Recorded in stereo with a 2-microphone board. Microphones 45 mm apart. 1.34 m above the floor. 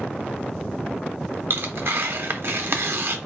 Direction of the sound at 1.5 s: 60° right (ahead or behind).